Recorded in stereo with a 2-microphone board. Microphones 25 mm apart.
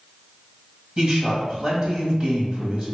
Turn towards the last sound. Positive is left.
turn(degrees=-35)  # may be behind; listen again after turning